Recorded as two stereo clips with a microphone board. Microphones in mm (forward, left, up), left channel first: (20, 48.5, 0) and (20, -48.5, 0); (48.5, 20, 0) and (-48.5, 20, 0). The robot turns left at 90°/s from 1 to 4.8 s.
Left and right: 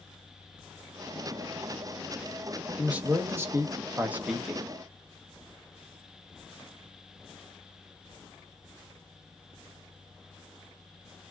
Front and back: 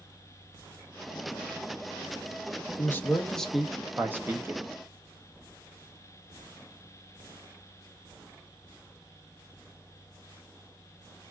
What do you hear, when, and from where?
2.8 s a man speaking: 20° right, 0.6 m; by 4.8 s 160° left, 0.6 m